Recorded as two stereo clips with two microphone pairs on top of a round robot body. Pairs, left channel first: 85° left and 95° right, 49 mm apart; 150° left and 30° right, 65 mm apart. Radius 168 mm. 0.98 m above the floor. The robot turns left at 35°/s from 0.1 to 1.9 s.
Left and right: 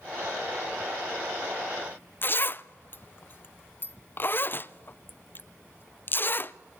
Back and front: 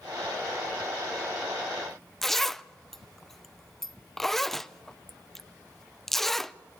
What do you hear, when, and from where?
2.2 s a zipper: 70° left, 0.7 m